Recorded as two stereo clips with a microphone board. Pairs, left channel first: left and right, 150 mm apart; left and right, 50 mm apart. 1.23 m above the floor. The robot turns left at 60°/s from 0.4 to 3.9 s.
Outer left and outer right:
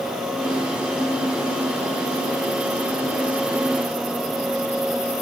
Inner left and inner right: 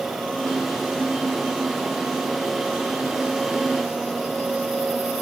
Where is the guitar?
I don't hear a guitar.